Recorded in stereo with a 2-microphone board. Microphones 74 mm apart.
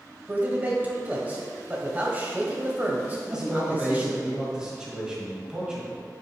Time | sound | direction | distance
0.3 | a man speaking | 25° right (ahead or behind) | 1.3 m
3.3 | a man speaking | 10° right (ahead or behind) | 1.9 m